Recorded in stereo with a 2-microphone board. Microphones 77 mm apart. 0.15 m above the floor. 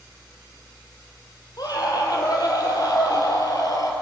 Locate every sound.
1.6 s a scream: 55° left (ahead or behind), 5.5 m; by 3.9 s 50° left (ahead or behind), 4 m